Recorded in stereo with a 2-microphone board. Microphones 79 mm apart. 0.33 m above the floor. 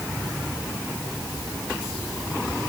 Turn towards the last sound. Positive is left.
No sound to turn to.